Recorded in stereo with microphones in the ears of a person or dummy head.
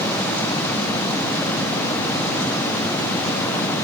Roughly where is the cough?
No cough in this recording.